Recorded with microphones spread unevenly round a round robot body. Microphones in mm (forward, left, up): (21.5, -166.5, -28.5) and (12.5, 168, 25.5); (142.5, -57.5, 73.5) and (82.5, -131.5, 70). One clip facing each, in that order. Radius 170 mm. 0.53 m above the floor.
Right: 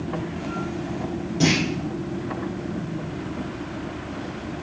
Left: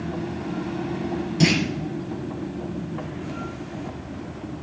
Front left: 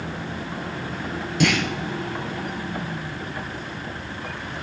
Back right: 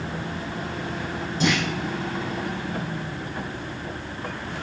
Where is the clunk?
40° left, 3 m.